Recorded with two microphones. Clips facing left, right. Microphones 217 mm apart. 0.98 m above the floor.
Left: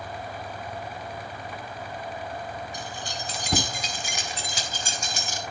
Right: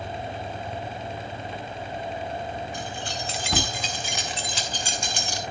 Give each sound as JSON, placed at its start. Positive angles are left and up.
{"t": 2.7, "sound": "keys jangling", "side_deg": 40, "distance_m": 4.0}